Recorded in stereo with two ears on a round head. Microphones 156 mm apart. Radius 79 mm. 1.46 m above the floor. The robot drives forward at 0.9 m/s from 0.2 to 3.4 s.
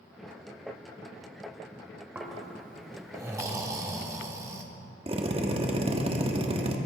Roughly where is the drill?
Right.